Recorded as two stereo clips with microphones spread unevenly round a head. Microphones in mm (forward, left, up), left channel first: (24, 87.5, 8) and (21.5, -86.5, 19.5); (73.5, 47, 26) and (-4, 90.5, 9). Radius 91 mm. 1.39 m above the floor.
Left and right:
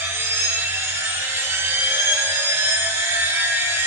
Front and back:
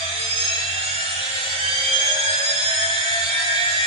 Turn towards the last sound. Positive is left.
turn(degrees=-170)